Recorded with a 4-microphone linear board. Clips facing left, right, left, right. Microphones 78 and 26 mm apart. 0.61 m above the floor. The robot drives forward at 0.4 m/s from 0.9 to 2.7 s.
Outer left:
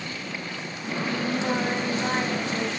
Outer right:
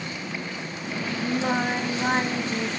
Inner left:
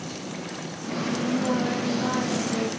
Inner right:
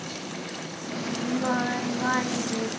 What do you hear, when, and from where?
1.2 s singing: 35° right (ahead or behind), 2.5 m; by 2.7 s 45° right (ahead or behind), 2.5 m